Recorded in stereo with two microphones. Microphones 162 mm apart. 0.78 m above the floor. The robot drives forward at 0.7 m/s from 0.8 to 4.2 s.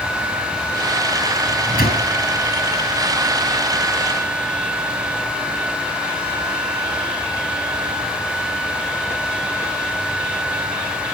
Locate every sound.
1.4 s a microwave: 70° left (ahead or behind), 8.5 m